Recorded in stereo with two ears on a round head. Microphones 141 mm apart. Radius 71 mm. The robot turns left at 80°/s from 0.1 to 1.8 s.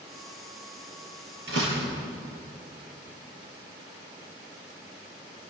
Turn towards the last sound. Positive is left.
turn(degrees=-80)